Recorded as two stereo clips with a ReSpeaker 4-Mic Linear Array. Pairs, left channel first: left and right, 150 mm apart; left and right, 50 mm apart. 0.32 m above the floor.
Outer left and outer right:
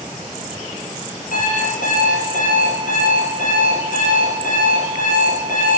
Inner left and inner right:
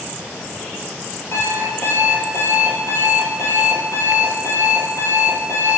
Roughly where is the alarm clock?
Left.